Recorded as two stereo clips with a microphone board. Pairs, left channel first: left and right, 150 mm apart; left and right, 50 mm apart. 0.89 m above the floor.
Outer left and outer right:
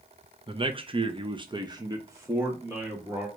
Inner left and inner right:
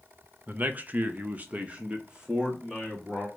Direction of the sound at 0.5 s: 35° right (ahead or behind).